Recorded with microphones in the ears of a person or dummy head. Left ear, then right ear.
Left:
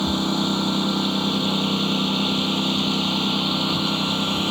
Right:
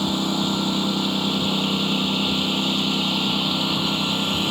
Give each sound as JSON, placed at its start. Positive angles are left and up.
{"t": 0.0, "sound": "a lawn mower", "side_deg": 0}